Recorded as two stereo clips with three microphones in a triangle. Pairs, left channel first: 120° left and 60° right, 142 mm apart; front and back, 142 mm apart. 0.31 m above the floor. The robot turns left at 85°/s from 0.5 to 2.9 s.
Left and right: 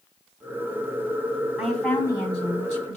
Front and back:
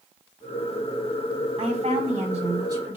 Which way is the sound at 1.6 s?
140° right.